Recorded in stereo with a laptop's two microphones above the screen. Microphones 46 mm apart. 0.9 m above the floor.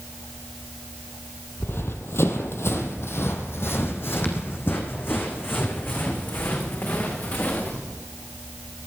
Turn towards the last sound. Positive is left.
turn(degrees=40)  # may be behind; listen again after turning